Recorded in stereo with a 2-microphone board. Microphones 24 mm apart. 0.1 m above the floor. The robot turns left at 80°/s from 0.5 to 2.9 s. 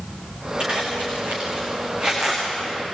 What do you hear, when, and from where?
0.6 s a zipper: 40° right (ahead or behind), 8.5 m; by 2.4 s 5° left (ahead or behind), 8.5 m